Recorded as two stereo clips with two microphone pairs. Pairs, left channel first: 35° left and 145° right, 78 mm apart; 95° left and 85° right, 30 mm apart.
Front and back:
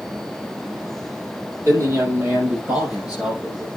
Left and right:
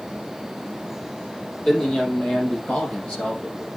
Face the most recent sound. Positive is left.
turn(degrees=135)